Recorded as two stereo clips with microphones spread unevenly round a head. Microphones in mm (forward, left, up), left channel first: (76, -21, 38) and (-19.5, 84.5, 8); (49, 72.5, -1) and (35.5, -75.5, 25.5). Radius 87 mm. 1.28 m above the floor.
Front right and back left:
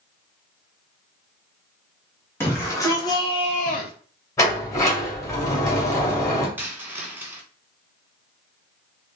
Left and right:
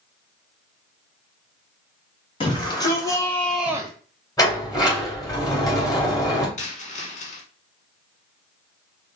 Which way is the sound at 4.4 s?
15° left.